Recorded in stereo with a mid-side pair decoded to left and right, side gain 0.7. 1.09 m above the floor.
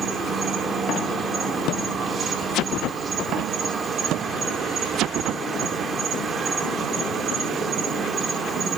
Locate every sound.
0.0 s an insect: 30° right, 2.5 m